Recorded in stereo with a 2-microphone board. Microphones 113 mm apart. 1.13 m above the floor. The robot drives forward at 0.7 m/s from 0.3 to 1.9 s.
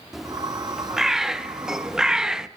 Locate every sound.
0.1 s a bird: 5° right (ahead or behind), 2 m